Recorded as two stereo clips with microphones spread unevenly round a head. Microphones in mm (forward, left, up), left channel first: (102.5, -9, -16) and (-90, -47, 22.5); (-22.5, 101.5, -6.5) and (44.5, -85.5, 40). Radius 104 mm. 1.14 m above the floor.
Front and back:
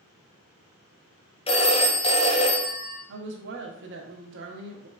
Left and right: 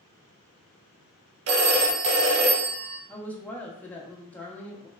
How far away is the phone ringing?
About 0.6 m.